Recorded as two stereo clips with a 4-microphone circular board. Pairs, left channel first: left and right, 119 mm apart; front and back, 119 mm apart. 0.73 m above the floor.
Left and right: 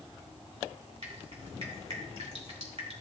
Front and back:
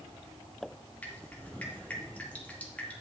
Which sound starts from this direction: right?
Dripping, at 1.0 s.